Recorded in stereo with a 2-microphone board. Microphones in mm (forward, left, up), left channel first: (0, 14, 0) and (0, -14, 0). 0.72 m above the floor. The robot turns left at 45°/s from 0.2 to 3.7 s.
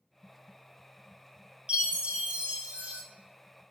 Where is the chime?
55° right, 0.8 m; by 3.0 s 115° right, 0.8 m.